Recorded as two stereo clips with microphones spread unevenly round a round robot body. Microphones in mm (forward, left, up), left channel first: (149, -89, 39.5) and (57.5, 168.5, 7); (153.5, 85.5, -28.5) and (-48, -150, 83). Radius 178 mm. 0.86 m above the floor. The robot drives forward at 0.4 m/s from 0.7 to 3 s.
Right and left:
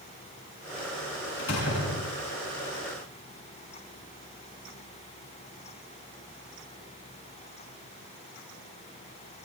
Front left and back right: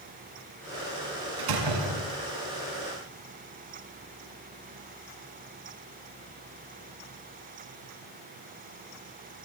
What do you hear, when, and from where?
1.4 s a door slam: 130° right, 6.5 m